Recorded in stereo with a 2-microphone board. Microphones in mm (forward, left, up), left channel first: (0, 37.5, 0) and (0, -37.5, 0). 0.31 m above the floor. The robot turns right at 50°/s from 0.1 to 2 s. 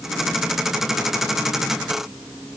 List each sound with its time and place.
Only background noise.